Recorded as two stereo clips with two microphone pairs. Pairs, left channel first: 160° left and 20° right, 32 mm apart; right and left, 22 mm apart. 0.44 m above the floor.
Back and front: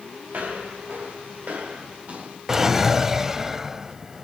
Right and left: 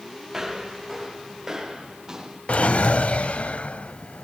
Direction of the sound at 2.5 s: 95° right.